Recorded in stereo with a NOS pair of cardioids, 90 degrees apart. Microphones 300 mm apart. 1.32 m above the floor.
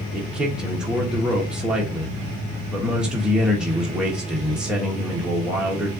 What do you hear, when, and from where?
0.1 s a man speaking: 5° right, 1.3 m